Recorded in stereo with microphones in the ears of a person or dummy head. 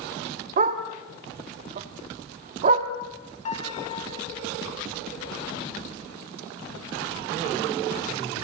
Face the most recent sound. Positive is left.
turn(degrees=40)  # may be behind; listen again after turning